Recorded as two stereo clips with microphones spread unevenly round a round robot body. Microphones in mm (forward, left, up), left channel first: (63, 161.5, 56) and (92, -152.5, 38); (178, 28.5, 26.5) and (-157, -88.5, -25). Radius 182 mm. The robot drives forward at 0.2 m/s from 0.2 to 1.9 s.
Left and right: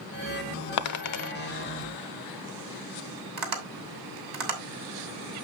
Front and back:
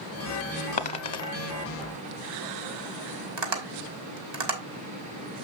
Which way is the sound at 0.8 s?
80° left.